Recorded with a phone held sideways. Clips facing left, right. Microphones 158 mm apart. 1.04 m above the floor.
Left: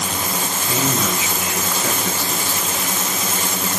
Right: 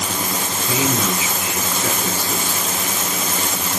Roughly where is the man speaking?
Centre.